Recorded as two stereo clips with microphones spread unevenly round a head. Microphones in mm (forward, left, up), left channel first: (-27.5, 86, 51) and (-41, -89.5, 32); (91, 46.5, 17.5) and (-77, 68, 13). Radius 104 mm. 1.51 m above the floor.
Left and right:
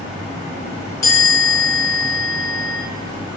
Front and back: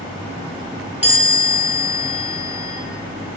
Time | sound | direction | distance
1.0 | a chime | 100° left | 0.9 m